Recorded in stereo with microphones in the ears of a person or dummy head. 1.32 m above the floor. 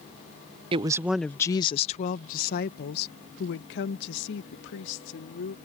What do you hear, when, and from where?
0.7 s a woman speaking: 30° right (ahead or behind); by 5.5 s 75° left (ahead or behind)